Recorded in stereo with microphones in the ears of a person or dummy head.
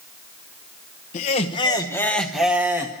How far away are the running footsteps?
I don't hear running footsteps.